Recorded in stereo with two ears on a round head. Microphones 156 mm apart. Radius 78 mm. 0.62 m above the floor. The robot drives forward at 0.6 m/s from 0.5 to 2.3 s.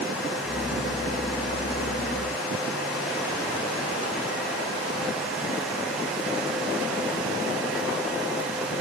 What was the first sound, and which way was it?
Only background noise.